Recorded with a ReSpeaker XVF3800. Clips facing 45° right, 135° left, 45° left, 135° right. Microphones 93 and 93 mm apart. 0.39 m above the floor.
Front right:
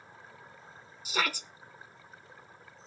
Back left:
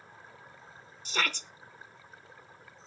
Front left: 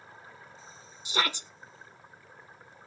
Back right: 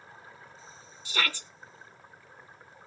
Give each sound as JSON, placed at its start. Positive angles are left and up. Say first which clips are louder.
{"t": 1.1, "sound": "a shout", "louder": "front right 1 dB, front left 2 dB", "azimuth_deg": 25, "distance_m": 0.8}